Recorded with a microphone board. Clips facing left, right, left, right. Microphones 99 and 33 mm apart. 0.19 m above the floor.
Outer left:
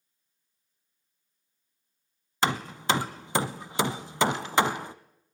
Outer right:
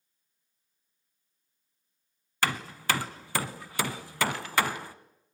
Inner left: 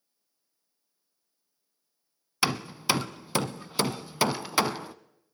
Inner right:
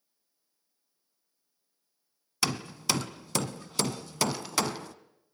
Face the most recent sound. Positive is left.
turn(degrees=20)  # may be behind; listen again after turning